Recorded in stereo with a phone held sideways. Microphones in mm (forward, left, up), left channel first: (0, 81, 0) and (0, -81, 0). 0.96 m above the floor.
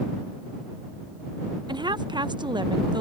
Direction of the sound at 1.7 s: 30° right (ahead or behind).